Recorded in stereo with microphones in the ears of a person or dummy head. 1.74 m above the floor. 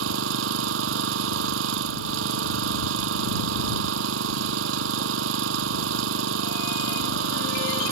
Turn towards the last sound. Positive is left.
turn(degrees=-85)